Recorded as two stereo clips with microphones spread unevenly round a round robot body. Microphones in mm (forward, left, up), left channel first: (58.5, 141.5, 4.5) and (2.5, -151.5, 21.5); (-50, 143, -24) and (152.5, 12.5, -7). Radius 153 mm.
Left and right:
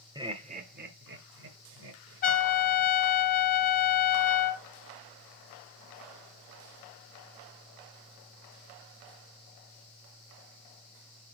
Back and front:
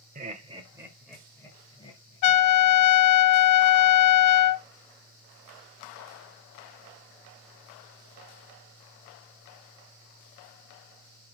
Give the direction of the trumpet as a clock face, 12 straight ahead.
7 o'clock.